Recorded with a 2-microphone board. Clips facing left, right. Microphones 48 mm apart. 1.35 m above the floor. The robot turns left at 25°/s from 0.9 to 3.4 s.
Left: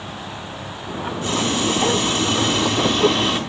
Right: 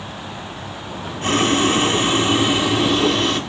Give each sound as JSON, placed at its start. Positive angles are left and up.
{"t": 1.2, "sound": "boiling", "azimuth_deg": -130, "distance_m": 3.0}